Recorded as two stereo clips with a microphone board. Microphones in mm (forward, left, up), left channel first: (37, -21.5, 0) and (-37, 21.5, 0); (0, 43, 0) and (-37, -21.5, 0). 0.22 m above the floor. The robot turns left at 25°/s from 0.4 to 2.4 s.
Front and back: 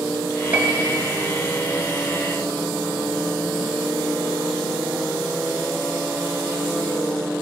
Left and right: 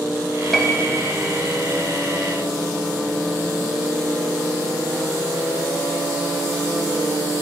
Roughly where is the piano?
Behind left.